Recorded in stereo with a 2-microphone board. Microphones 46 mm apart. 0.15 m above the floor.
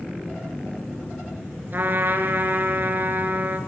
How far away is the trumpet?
About 2 m.